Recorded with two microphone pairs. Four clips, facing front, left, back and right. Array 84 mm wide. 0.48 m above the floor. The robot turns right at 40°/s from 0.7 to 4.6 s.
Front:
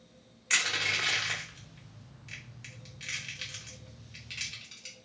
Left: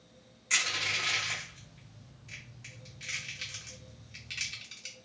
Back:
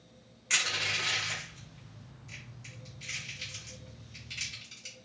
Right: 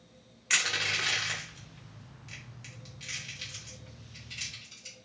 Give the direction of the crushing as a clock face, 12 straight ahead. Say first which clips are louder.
Right 2 dB, front 2 dB; 3 o'clock.